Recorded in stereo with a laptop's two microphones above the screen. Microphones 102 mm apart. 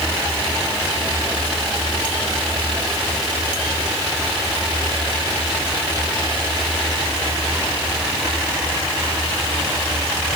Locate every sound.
Only background noise.